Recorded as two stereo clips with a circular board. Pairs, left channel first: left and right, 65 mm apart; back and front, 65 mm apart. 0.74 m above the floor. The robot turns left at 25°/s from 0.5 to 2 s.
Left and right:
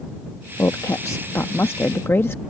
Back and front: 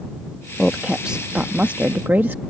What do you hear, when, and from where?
0.6 s a woman speaking: 85° left; by 2.4 s 50° left